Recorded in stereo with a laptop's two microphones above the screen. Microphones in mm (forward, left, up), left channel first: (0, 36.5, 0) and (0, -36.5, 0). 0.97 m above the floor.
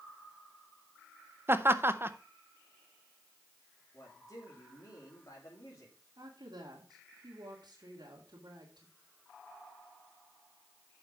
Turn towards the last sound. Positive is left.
turn(degrees=-75)  # may be behind; listen again after turning